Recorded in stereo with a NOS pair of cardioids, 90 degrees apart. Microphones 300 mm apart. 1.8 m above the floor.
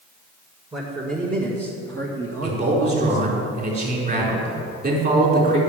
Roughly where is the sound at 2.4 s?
Ahead right.